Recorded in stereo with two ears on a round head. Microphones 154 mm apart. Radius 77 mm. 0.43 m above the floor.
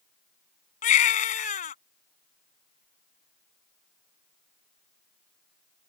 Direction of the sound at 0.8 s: 45° left (ahead or behind).